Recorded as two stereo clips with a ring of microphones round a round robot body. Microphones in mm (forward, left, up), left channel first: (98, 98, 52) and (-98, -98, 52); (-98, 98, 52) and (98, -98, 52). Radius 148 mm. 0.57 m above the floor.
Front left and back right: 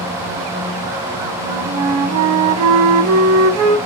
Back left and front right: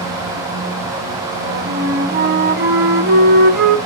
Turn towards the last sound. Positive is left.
turn(degrees=-100)